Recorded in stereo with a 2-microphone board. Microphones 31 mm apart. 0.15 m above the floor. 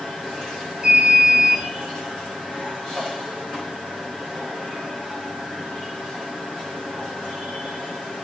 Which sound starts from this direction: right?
An alarm, at 0.8 s.